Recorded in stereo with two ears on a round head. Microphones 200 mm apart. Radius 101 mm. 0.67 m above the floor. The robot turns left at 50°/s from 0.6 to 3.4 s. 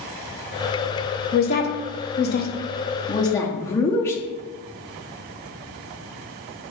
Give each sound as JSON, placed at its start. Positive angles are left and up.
{"t": 1.3, "sound": "a woman speaking", "side_deg": 40, "distance_m": 0.7}